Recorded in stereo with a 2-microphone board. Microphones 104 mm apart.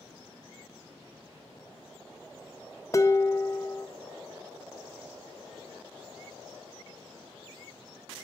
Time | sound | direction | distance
2.9 | dishes clattering | 30° left (ahead or behind) | 0.5 m